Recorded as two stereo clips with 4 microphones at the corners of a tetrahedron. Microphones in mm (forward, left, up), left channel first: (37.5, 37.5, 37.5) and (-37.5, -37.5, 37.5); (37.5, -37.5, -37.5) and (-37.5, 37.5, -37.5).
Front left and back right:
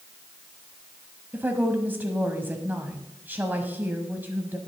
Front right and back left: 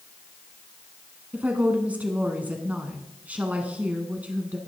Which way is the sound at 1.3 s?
175° right.